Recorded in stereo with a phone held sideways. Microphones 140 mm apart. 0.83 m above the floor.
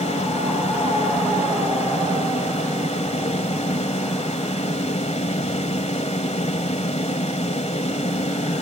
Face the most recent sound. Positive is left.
turn(degrees=50)  # may be behind; listen again after turning